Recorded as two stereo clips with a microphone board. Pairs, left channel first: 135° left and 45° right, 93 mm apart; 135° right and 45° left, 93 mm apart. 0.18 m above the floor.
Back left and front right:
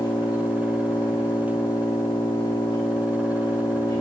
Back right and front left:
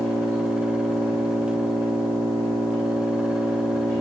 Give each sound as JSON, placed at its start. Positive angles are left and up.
{"t": 0.0, "sound": "an engine running", "azimuth_deg": 160, "distance_m": 9.0}